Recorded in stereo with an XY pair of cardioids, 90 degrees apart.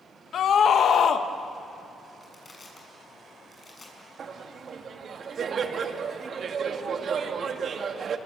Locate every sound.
0.3 s a scream: 70° left, 1.0 m
2.2 s crushing: 40° left, 6.5 m
4.2 s laughter: 55° right, 2.5 m